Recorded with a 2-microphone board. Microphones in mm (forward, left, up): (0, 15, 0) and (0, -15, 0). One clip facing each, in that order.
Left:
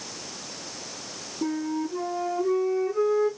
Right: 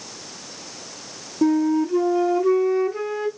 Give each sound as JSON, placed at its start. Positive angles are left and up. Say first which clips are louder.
{"t": 1.4, "sound": "a flute", "louder": "right 10 dB", "side_deg": -45, "distance_m": 1.1}